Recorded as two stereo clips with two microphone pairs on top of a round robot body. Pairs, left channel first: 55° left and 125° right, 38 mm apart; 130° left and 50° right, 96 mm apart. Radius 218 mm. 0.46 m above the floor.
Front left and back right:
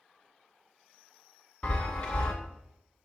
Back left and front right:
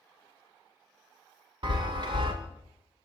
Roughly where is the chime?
Ahead.